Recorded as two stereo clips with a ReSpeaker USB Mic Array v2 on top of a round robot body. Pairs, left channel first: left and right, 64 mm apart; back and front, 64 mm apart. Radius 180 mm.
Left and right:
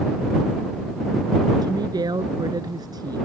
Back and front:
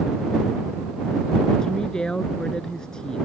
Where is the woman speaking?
100° right.